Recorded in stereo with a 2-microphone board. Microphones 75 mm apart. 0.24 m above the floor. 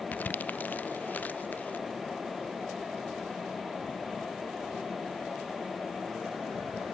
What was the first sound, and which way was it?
Crumpling, 25° left (ahead or behind).